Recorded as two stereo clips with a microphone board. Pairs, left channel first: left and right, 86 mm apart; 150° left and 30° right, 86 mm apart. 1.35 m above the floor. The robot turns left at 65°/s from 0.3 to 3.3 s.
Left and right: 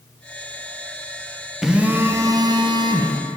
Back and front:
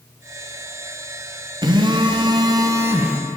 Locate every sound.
1.6 s a phone buzzing: 5° right, 0.6 m; by 3.2 s 110° right, 0.6 m